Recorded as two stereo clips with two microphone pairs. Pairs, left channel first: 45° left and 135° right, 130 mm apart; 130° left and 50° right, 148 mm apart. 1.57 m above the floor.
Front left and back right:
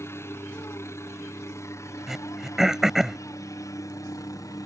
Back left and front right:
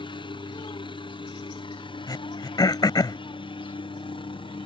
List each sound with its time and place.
0.0 s a helicopter: 100° left; by 4.7 s 95° left
2.1 s throat clearing: 140° left